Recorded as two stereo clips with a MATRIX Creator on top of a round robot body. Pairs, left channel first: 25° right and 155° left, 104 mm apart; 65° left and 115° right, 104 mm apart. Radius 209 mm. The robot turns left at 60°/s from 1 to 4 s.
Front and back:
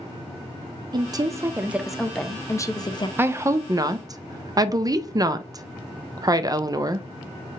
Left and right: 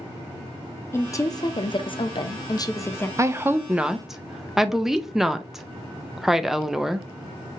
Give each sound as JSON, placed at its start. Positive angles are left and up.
{"t": 0.9, "sound": "a woman speaking", "azimuth_deg": 125, "distance_m": 0.7}
{"t": 3.2, "sound": "a woman speaking", "azimuth_deg": -150, "distance_m": 0.6}